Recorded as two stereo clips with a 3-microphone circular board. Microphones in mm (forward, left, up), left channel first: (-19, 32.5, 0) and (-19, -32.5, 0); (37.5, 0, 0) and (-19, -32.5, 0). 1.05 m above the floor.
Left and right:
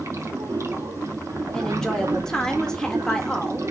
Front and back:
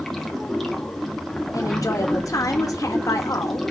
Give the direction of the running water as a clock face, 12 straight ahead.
2 o'clock.